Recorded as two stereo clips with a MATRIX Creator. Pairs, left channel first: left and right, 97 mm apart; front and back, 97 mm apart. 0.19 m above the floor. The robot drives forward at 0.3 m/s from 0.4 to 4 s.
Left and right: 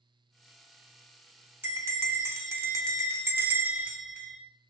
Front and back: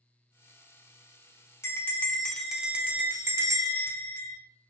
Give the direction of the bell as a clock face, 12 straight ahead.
1 o'clock.